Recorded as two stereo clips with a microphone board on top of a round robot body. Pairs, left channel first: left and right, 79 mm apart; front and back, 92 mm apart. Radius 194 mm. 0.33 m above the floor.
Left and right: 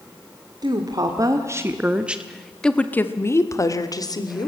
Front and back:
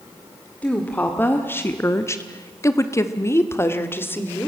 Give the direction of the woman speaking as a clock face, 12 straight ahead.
2 o'clock.